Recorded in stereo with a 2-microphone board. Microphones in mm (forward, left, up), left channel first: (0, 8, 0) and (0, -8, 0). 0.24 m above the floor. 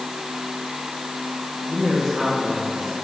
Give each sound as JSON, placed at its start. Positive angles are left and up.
{"t": 1.7, "sound": "a man speaking", "side_deg": -35, "distance_m": 10.0}